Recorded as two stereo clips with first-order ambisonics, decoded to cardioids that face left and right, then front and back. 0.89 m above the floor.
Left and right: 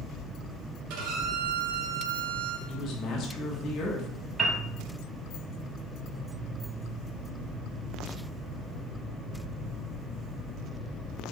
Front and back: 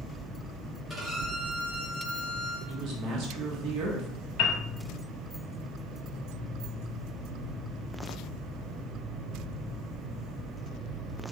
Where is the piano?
20° right, 0.9 m.